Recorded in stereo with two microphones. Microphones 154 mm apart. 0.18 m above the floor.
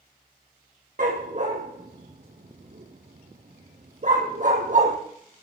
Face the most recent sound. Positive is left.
turn(degrees=-55)  # may be behind; listen again after turning